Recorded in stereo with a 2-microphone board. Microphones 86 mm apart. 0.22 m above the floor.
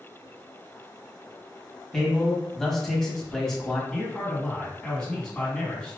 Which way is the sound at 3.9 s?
10° left (ahead or behind).